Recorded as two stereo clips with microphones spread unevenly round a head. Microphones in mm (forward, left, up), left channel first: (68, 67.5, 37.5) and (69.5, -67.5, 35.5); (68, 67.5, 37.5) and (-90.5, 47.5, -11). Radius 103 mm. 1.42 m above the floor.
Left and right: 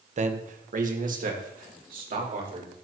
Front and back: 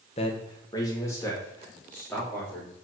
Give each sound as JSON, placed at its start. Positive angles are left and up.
{"t": 0.2, "sound": "a man speaking", "azimuth_deg": -60, "distance_m": 1.2}